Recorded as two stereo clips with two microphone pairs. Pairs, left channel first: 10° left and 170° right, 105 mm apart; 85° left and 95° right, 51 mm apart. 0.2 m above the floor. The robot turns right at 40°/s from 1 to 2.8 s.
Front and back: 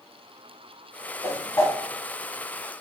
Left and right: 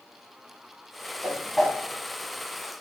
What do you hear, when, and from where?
1.2 s a whoosh: 20° right, 0.7 m; by 1.8 s straight ahead, 0.7 m